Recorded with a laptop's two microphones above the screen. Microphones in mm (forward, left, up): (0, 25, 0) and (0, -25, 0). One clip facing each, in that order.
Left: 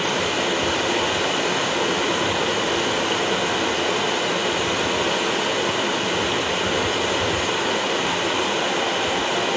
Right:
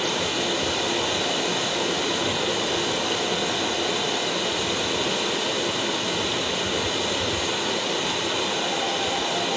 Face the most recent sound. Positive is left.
turn(degrees=30)  # may be behind; listen again after turning